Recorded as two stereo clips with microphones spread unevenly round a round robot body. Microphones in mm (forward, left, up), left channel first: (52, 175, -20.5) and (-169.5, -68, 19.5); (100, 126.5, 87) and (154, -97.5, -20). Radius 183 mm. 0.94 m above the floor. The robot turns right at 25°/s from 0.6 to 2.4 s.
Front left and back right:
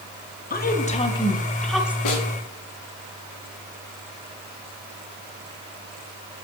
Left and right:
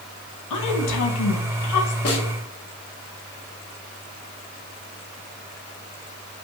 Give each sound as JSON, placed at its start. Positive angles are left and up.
{"t": 0.5, "sound": "a woman speaking", "azimuth_deg": 105, "distance_m": 1.3}
{"t": 2.0, "sound": "a snare drum", "azimuth_deg": 75, "distance_m": 1.9}